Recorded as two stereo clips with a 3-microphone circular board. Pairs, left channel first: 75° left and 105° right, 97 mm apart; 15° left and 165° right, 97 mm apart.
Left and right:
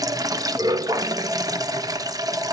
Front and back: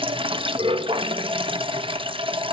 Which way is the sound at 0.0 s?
150° right.